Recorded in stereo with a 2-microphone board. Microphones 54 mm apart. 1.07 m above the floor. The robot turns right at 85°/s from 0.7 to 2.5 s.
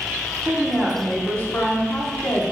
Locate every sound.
0.4 s a woman speaking: 30° right, 1.2 m; by 2.5 s 125° left, 1.2 m